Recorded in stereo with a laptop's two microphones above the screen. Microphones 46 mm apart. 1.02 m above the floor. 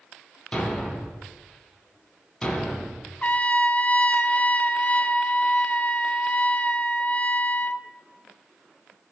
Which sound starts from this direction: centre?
A thud, at 0.5 s.